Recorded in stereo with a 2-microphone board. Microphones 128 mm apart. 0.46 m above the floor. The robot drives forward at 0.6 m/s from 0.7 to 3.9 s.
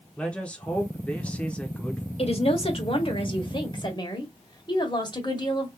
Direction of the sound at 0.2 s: 10° left (ahead or behind).